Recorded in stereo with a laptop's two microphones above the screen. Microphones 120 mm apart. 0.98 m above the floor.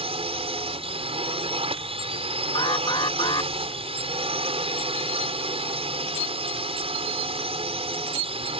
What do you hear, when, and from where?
0.0 s a drone: 60° right (ahead or behind)
2.5 s an alarm: 45° left (ahead or behind)